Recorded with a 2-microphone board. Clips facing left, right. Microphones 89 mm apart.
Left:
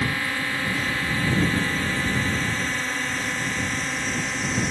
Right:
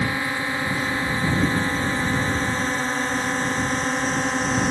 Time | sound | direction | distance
0.0 | a drone | 20° right (ahead or behind) | ?